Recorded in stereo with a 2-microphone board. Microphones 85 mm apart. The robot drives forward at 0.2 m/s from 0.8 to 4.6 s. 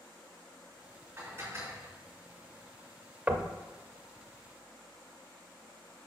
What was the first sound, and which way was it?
Dishes clattering, 30° right (ahead or behind).